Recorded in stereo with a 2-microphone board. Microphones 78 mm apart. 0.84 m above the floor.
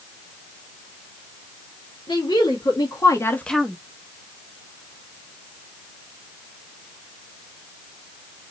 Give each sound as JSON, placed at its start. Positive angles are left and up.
{"t": 2.1, "sound": "a woman speaking", "side_deg": 75, "distance_m": 2.5}